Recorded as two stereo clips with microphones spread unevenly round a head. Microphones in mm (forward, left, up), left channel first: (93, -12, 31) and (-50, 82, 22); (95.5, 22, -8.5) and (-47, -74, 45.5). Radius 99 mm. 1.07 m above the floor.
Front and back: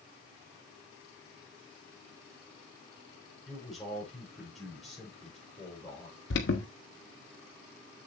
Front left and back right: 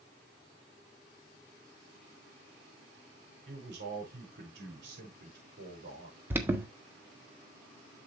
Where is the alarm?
70° right, 1.6 m.